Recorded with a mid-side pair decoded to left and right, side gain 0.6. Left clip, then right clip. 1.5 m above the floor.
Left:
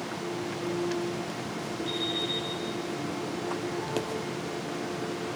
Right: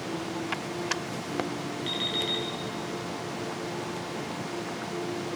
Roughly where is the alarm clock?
Ahead right.